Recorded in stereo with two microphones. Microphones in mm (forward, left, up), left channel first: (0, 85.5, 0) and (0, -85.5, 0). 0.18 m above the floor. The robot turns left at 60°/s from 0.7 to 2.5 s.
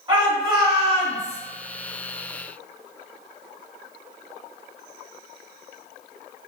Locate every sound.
0.1 s a shout: 90° right, 1.3 m; by 1.4 s 130° right, 1.3 m